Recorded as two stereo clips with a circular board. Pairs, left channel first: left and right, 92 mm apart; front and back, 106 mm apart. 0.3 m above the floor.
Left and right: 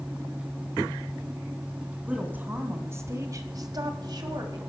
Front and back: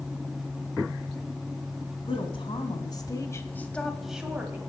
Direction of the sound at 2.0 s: 20° right.